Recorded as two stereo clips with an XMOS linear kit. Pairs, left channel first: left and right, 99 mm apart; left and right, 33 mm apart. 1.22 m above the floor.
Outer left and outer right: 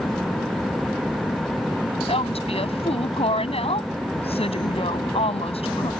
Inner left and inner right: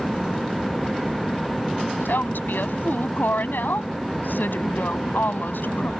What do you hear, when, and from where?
2.0 s a woman speaking: 80° left